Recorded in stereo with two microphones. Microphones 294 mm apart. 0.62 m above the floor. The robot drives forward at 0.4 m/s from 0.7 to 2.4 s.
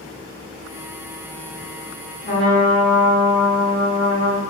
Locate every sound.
2.2 s a trumpet: 20° left (ahead or behind), 0.9 m